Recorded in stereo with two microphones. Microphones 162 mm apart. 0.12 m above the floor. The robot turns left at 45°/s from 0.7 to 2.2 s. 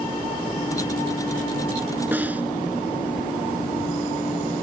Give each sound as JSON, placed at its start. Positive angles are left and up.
{"t": 2.1, "sound": "a snare drum", "side_deg": -10}